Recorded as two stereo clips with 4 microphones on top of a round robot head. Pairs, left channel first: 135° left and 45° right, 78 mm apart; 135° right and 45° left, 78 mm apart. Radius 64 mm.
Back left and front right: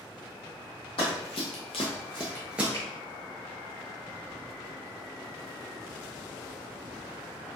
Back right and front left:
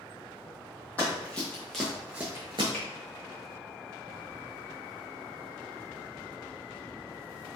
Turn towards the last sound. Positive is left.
turn(degrees=160)